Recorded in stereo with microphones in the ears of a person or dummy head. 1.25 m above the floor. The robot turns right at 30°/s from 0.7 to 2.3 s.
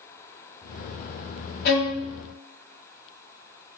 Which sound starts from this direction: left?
A violin, at 1.6 s.